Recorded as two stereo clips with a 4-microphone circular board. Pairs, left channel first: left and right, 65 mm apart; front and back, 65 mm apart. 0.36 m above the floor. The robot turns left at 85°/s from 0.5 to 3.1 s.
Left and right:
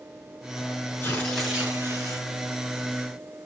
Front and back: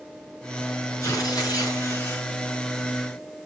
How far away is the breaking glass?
I don't hear breaking glass.